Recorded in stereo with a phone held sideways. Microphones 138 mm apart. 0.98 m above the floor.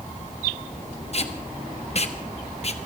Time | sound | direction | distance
1.1 | tape being pulled | 45° left (ahead or behind) | 1.1 m